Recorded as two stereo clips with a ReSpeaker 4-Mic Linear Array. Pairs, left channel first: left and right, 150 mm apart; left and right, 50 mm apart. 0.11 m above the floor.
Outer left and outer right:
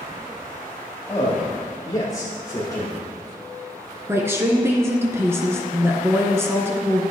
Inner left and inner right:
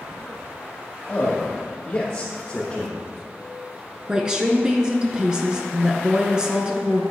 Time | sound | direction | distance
1.1 | a man speaking | 25° left (ahead or behind) | 3 m
4.1 | a woman speaking | 15° right (ahead or behind) | 1.2 m